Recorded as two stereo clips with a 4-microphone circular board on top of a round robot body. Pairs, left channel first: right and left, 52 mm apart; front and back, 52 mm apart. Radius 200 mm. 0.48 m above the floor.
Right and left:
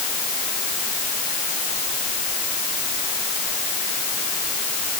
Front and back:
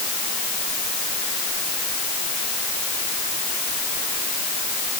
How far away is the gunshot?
I don't hear a gunshot.